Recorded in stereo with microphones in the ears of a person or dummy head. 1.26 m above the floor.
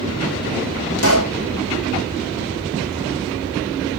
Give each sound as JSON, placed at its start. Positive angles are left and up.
{"t": 1.0, "sound": "a pop", "side_deg": 80, "distance_m": 4.5}